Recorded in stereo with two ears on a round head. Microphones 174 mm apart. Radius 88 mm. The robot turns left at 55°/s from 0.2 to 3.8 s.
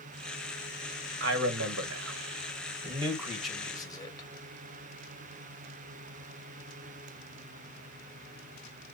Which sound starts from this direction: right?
A man speaking, at 1.2 s.